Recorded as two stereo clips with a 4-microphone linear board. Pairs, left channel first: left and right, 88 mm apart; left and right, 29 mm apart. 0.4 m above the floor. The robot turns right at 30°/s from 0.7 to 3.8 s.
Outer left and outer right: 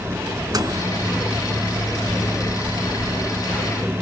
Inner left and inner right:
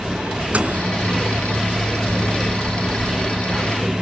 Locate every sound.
0.5 s a microwave: 50° right (ahead or behind), 3.5 m; by 0.9 s 45° right (ahead or behind), 3.5 m